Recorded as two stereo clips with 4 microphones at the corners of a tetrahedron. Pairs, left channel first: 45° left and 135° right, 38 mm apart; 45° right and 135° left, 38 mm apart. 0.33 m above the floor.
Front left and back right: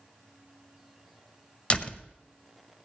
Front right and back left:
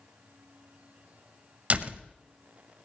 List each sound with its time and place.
1.7 s a door slam: 100° left, 0.8 m